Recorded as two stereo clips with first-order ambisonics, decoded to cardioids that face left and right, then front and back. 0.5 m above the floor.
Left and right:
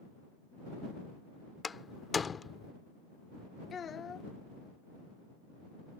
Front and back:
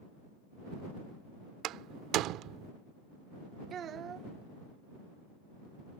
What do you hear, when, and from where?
1.6 s a door slam: 160° left
3.7 s a child speaking: 140° left